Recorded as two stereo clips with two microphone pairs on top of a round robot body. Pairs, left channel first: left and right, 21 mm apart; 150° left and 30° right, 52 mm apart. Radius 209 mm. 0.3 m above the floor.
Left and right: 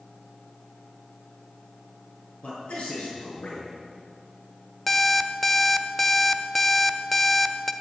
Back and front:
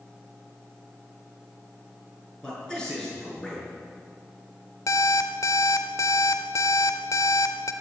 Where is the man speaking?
75° left, 7.5 m.